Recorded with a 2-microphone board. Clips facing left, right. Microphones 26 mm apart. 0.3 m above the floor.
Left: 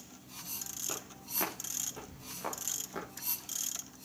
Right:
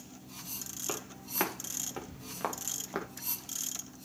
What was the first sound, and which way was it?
Footsteps, 45° right (ahead or behind).